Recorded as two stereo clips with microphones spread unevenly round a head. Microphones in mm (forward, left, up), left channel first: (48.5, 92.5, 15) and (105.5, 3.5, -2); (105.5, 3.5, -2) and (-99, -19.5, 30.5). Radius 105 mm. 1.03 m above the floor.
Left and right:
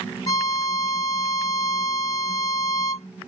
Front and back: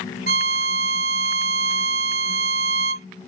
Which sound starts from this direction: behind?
A violin, at 0.3 s.